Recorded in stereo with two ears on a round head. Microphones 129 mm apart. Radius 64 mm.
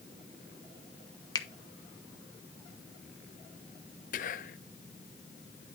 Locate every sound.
1.4 s a finger snap: 30° left (ahead or behind), 1.0 m
4.1 s whispering: 60° left (ahead or behind), 0.7 m